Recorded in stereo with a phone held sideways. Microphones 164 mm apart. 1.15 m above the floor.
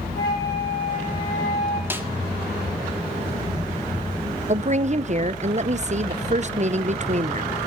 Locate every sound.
0.1 s a flute: 80° left, 3.5 m
1.9 s a snare drum: 15° right (ahead or behind), 1.2 m
4.5 s a woman speaking: 45° right (ahead or behind), 0.6 m